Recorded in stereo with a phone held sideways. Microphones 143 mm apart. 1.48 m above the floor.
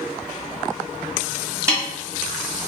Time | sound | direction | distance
1.7 | a snare drum | 15° right (ahead or behind) | 1.2 m